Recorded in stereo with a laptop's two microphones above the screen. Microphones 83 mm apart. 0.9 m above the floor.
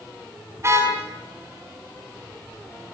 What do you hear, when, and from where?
0.6 s a car horn: 35° right (ahead or behind), 4 m